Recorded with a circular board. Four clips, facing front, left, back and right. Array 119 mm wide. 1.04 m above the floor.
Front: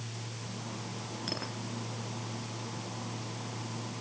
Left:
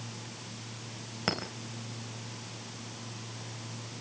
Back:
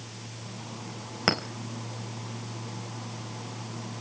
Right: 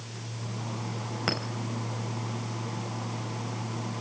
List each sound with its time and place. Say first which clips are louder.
1.3 s a clink: right 1 dB, back 13 dB; straight behind, 4 m